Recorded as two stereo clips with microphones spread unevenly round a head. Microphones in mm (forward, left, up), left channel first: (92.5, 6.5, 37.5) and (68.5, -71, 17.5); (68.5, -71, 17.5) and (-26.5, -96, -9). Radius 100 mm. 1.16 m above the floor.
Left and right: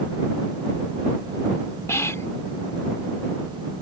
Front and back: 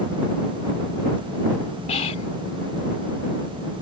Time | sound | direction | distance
1.9 | whispering | 20° left | ?